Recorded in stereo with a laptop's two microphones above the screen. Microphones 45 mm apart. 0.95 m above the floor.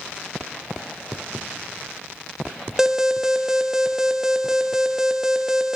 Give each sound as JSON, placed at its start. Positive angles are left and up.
{"t": 2.8, "sound": "an alarm", "side_deg": -10, "distance_m": 1.4}